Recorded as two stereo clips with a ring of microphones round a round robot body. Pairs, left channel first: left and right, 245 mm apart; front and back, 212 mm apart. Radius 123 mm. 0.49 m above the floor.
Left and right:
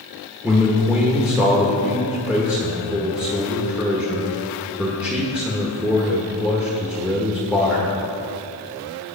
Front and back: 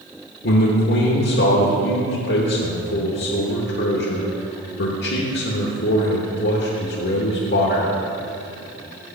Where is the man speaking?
5° right, 1.2 m.